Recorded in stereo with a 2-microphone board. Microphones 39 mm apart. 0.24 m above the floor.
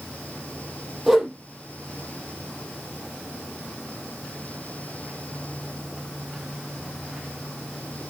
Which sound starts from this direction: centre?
A whoosh, at 1.1 s.